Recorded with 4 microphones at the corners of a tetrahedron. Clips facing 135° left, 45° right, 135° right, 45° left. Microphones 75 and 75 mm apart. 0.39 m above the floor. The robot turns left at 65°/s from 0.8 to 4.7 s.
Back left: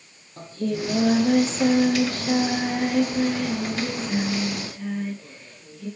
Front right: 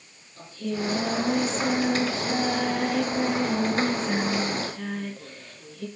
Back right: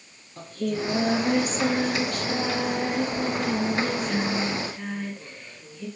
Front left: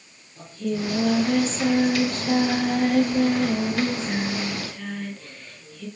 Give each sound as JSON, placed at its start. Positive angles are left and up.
{"t": 0.4, "sound": "singing", "azimuth_deg": -175, "distance_m": 7.5}